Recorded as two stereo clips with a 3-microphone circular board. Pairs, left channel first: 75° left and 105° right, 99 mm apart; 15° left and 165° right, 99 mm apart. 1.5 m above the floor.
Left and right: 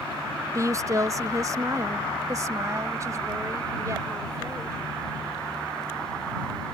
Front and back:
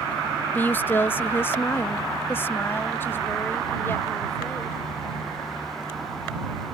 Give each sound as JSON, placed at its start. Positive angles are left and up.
{"t": 0.6, "sound": "a woman speaking", "azimuth_deg": -50}